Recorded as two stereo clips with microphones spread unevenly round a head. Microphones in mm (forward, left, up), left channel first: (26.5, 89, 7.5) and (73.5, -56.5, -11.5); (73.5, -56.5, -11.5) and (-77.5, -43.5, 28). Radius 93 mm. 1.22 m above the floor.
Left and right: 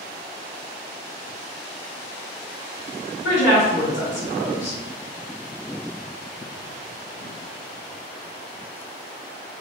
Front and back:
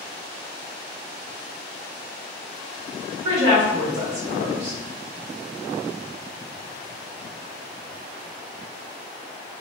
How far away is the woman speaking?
About 1.7 m.